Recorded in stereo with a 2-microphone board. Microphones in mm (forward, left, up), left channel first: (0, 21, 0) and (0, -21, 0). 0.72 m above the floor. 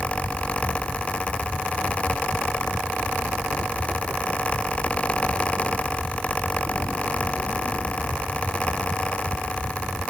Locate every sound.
Only background noise.